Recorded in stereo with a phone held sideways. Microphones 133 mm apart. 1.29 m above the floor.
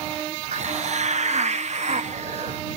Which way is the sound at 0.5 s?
60° right (ahead or behind).